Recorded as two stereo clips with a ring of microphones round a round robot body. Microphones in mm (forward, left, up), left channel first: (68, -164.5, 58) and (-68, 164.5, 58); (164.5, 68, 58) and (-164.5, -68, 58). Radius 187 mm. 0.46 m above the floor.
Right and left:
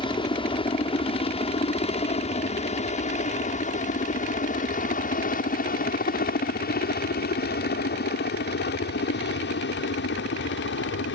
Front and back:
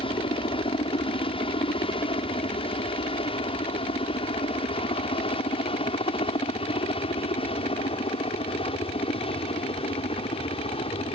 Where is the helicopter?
20° right; by 11.2 s 40° right.